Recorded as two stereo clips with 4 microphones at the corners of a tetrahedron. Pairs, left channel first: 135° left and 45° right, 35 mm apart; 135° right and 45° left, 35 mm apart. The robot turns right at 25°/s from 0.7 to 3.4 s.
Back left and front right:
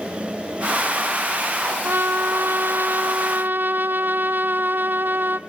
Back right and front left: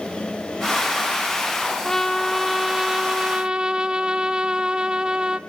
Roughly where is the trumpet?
Ahead right.